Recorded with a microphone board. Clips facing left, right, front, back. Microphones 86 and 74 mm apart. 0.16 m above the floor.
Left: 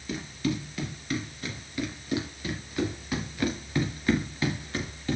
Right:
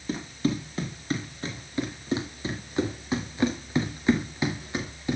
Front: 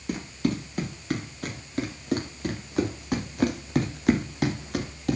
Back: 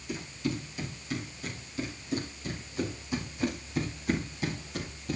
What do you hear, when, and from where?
0.1 s running footsteps: 30° right, 6.5 m; by 5.2 s 15° right, 4.5 m